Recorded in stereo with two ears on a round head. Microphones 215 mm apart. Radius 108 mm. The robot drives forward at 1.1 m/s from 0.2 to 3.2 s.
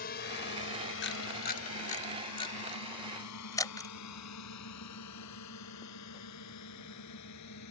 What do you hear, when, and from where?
0.0 s a drone: 40° left (ahead or behind); by 7.7 s 80° left
1.0 s a camera shutter: 45° left (ahead or behind); by 3.9 s 15° left (ahead or behind)